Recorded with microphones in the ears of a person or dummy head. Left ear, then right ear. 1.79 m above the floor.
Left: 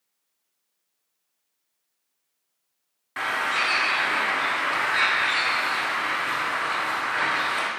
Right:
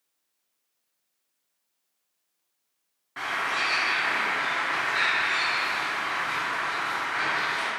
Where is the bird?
25° left (ahead or behind), 0.7 m.